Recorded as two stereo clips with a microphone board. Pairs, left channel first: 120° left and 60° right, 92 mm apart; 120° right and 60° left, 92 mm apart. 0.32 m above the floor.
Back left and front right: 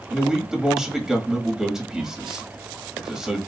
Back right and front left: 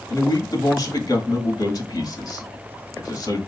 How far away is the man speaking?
About 1.2 m.